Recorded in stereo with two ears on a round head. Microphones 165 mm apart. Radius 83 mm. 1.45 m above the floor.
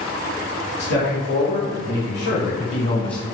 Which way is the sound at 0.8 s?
70° left (ahead or behind).